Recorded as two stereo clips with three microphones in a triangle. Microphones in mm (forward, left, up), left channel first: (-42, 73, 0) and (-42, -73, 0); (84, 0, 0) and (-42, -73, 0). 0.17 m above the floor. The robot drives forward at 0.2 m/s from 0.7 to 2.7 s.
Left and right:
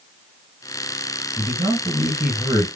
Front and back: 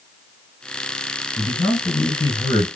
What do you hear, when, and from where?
1.4 s a man speaking: 15° right, 2 m; by 2.7 s 20° right, 2 m